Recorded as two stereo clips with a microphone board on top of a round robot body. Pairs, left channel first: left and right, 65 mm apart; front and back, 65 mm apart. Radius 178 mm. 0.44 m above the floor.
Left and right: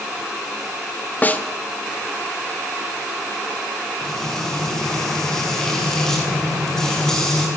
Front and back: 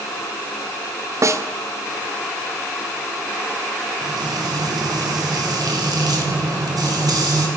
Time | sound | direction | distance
1.2 | a snare drum | 150° left | 2 m
4.0 | frying | 170° left | 6.5 m